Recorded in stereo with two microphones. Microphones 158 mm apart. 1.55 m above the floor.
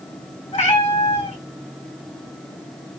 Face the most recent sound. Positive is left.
turn(degrees=55)  # may be behind; listen again after turning